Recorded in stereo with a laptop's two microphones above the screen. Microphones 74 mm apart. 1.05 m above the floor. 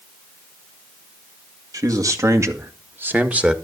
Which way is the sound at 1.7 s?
50° right (ahead or behind).